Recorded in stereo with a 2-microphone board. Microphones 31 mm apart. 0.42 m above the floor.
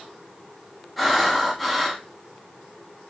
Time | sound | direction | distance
1.0 | breathing | centre (ahead or behind) | 0.5 m